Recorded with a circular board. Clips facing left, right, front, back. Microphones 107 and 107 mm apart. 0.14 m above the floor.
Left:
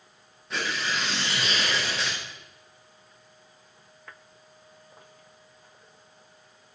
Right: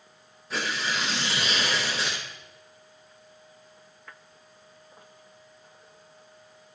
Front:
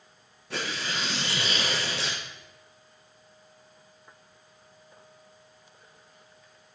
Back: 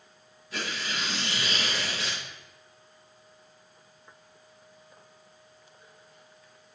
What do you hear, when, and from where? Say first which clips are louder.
0.5 s tearing paper: even, front 2 dB; 5° right, 7 m